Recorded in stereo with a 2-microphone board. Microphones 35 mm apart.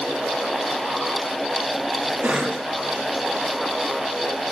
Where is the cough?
40° right (ahead or behind), 1.0 m.